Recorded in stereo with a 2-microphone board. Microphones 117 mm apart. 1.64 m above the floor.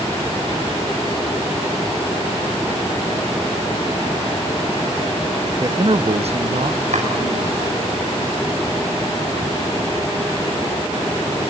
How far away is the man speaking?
About 0.6 m.